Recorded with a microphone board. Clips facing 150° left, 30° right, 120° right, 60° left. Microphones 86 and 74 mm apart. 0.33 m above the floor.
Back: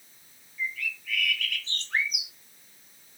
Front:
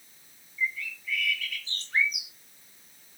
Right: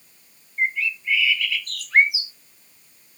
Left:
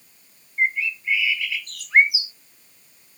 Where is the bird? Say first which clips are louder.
Front 1 dB, left 1 dB; 130° left, 1.9 m.